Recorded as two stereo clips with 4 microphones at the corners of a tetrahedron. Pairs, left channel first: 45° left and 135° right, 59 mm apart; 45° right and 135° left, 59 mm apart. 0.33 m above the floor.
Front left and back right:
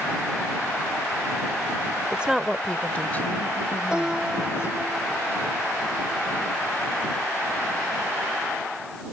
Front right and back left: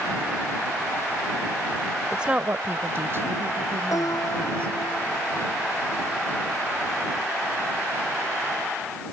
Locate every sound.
2.1 s a woman speaking: 155° right; by 4.8 s 90° left
3.9 s a piano: 60° right